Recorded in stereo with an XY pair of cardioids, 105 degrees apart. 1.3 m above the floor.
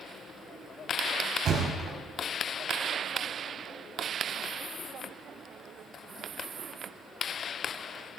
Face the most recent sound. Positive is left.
turn(degrees=-55)